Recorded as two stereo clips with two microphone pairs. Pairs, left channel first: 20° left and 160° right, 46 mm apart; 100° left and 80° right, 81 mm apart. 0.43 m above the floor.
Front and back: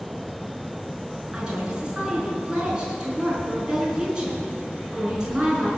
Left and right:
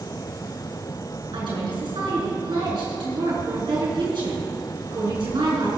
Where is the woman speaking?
90° right, 5.5 m.